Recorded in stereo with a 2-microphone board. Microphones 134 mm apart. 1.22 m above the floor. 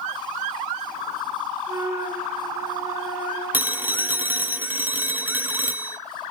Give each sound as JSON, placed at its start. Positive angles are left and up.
{"t": 1.7, "sound": "a flute", "side_deg": -20, "distance_m": 3.5}
{"t": 3.5, "sound": "a phone ringing", "side_deg": -15, "distance_m": 0.7}